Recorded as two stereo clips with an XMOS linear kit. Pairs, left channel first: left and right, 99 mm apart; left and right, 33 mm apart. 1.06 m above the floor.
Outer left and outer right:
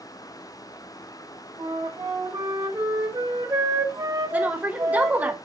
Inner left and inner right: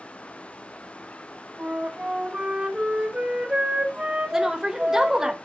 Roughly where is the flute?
Right.